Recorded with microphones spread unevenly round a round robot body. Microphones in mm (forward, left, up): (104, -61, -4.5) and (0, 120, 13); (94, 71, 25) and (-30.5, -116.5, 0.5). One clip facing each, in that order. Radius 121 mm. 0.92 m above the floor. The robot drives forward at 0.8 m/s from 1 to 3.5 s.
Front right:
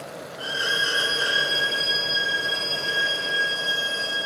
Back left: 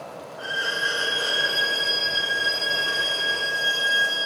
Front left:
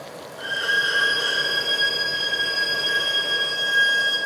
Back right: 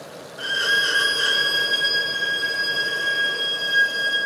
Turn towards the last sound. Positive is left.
turn(degrees=-165)